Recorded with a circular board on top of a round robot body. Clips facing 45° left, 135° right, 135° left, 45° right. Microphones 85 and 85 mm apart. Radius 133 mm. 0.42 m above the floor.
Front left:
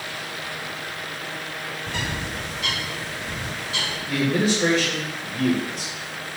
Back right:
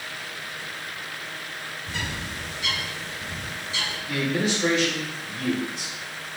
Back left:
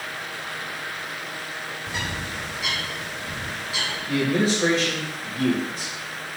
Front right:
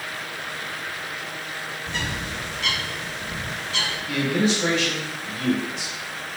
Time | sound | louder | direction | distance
1.9 | a bird | front left 3 dB, front right 1 dB | 50° left | 2 m
4.1 | a man speaking | front left 4 dB, back left 1 dB | 90° left | 2.5 m